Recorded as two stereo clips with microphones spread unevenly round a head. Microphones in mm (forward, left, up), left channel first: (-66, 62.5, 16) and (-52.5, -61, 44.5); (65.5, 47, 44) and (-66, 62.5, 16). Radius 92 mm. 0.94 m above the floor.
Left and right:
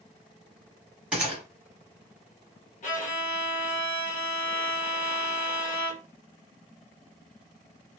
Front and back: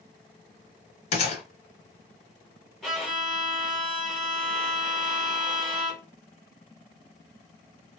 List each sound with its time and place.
1.1 s a gunshot: 10° right, 1.1 m
2.8 s a violin: 85° left, 2 m